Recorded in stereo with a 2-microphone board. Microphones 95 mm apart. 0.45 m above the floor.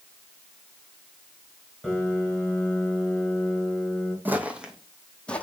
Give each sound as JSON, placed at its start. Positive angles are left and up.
{"t": 1.8, "sound": "a piano", "side_deg": -5, "distance_m": 3.5}
{"t": 4.2, "sound": "footsteps", "side_deg": -20, "distance_m": 1.3}